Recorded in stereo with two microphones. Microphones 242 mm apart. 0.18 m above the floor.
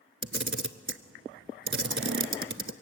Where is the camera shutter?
55° right (ahead or behind), 0.6 m.